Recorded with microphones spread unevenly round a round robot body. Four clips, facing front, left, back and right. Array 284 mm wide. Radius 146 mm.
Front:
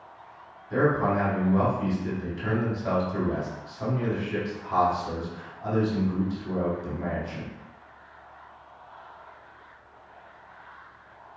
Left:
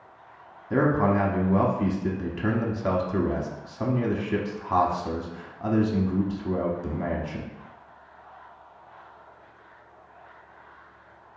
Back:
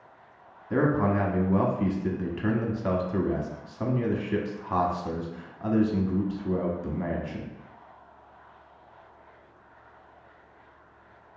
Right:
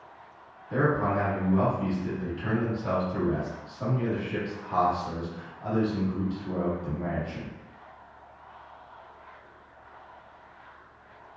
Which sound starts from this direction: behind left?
A man speaking, at 0.7 s.